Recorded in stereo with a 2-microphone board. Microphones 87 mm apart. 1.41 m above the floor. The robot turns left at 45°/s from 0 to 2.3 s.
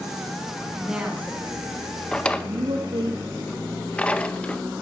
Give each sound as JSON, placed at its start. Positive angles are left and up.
{"t": 0.8, "sound": "a woman speaking", "side_deg": -5, "distance_m": 2.5}
{"t": 2.1, "sound": "a drawer", "side_deg": 10, "distance_m": 0.7}